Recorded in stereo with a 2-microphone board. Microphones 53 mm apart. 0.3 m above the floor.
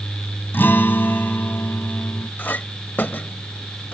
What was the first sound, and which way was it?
A guitar, 40° left (ahead or behind).